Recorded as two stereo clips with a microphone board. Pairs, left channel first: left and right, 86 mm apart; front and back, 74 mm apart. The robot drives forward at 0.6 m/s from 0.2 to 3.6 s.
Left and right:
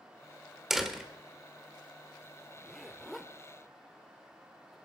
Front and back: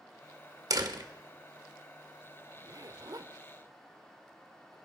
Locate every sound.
0.7 s a door slam: 175° right, 1.3 m
2.5 s a zipper: 175° left, 0.8 m; by 4.8 s straight behind, 1.3 m